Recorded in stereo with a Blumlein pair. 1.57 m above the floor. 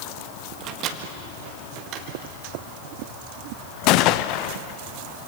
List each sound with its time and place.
0.6 s a microwave: 35° right, 1.6 m
1.9 s a drawer: 35° right, 2.5 m
3.9 s a gunshot: 40° left, 0.8 m